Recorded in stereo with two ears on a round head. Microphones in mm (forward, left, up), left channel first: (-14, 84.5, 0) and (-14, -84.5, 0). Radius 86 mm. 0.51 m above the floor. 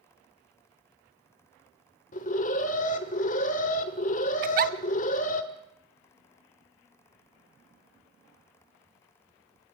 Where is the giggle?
50° right (ahead or behind), 0.8 m.